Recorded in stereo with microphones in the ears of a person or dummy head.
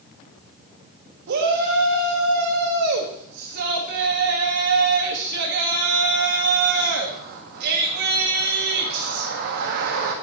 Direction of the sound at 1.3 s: 60° right (ahead or behind).